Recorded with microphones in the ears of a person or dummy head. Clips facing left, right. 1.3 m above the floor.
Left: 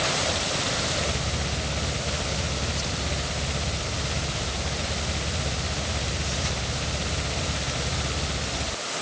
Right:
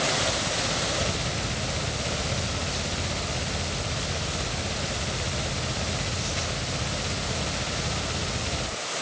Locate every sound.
Only background noise.